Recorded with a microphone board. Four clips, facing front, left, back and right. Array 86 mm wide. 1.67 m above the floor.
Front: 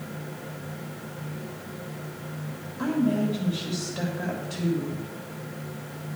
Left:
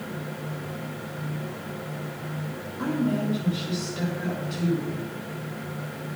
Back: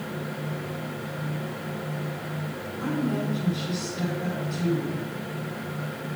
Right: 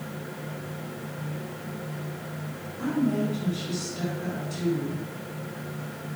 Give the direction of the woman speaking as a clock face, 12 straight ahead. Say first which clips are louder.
Even, front 3 dB; 11 o'clock.